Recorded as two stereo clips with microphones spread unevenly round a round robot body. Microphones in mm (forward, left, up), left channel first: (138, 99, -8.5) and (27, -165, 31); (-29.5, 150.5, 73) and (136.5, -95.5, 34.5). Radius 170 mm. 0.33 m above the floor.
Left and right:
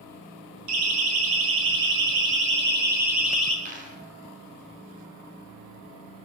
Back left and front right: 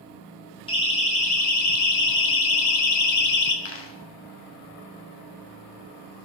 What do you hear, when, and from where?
0.7 s a siren: 160° right, 5.5 m; by 3.5 s 150° left, 4 m
3.6 s a dropped coin: straight behind, 3.5 m